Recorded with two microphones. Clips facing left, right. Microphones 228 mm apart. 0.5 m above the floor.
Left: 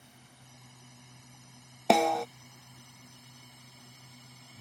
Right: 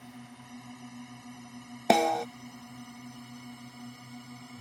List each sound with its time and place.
0.0 s a drone: 65° right (ahead or behind); by 4.6 s 60° right (ahead or behind)
1.9 s a snare drum: 5° right (ahead or behind)